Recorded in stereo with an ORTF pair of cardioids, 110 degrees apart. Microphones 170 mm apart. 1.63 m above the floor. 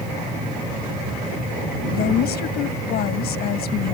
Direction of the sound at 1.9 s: 70° left.